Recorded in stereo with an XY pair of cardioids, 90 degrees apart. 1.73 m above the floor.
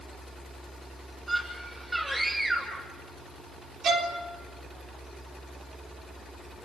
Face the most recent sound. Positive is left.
turn(degrees=-70)